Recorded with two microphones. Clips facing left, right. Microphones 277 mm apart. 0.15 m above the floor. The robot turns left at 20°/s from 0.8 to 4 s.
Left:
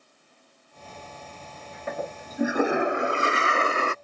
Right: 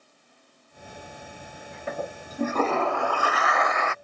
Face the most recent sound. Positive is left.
turn(degrees=140)